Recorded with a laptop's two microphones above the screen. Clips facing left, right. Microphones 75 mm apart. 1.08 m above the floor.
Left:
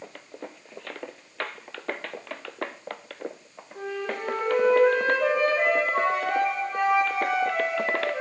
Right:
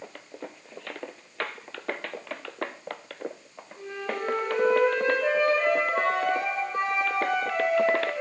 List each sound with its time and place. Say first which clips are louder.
3.8 s a flute: left 2 dB; 70° left (ahead or behind), 4 m